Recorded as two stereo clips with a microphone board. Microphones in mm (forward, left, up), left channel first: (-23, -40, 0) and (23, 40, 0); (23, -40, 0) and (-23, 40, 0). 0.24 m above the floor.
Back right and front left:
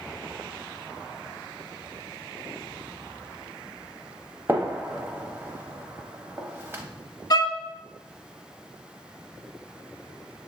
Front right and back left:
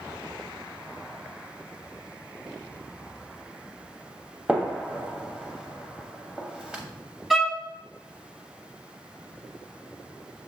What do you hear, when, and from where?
4.5 s a gunshot: 55° left, 0.7 m
7.3 s a violin: 150° right, 0.7 m